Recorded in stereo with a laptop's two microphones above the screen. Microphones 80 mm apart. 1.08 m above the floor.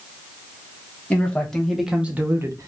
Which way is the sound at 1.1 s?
15° left (ahead or behind).